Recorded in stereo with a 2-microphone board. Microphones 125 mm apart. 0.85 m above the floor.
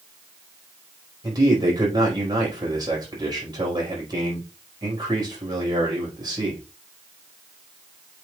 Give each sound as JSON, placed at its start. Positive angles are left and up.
{"t": 1.2, "sound": "a man speaking", "side_deg": -35, "distance_m": 4.5}